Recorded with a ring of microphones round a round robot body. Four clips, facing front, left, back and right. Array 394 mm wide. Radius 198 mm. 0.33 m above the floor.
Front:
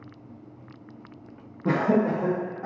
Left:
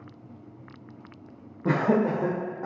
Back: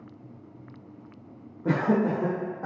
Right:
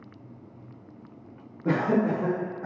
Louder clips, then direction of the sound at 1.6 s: Left 1 dB, front 2 dB; 70° left.